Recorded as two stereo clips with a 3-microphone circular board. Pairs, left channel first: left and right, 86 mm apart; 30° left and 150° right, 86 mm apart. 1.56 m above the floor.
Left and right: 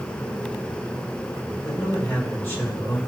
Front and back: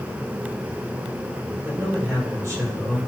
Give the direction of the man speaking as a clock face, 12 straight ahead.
7 o'clock.